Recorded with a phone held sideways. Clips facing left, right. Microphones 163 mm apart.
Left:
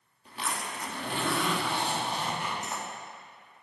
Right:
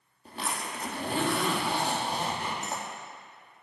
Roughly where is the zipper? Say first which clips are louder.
Right 1 dB; right.